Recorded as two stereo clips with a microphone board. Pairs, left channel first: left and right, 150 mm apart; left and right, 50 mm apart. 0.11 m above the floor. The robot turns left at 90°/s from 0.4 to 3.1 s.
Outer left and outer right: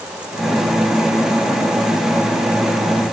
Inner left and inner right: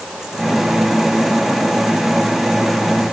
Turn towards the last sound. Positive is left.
No sound to turn to.